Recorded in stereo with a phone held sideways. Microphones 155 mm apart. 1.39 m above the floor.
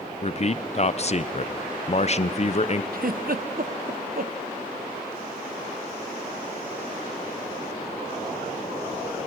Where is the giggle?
65° right (ahead or behind), 0.7 m.